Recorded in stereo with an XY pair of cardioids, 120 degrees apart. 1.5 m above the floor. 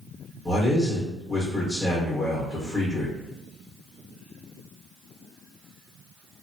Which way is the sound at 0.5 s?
20° left.